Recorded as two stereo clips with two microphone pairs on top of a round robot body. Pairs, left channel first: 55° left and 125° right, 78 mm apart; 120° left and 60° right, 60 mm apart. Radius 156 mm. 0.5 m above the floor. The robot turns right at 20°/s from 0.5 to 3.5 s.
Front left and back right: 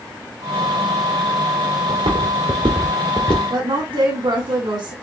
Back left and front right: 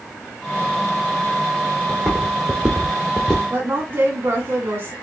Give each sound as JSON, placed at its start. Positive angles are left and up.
{"t": 1.9, "sound": "footsteps", "azimuth_deg": -155, "distance_m": 1.0}
{"t": 3.5, "sound": "a woman speaking", "azimuth_deg": -110, "distance_m": 1.5}